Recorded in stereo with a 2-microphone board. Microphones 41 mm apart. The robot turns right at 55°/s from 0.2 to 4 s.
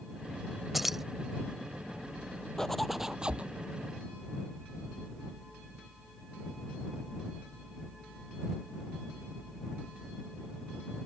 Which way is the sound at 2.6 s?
10° left (ahead or behind).